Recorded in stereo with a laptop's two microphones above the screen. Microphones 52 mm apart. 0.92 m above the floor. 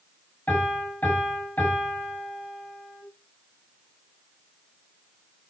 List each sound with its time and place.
0.5 s a piano: 30° left (ahead or behind), 7 m